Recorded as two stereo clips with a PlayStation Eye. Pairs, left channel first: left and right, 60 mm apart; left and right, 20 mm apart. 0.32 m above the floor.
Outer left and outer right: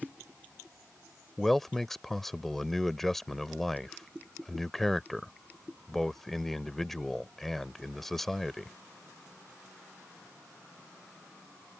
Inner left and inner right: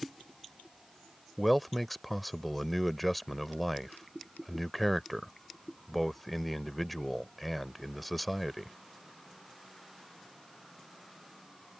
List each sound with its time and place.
1.4 s a man speaking: 5° left (ahead or behind)